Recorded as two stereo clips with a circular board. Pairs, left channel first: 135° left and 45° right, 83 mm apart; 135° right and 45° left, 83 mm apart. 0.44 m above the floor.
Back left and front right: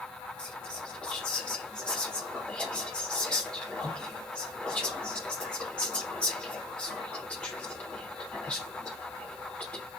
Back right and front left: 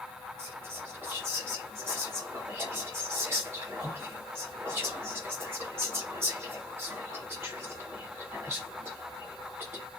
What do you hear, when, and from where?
0.4 s whispering: 70° left, 0.8 m